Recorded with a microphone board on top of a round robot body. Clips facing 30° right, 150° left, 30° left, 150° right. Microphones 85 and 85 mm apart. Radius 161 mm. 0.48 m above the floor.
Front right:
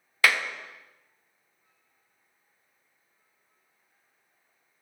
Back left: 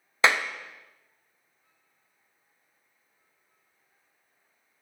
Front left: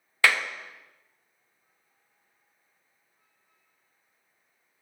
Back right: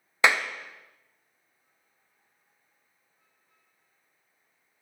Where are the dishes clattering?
I don't hear dishes clattering.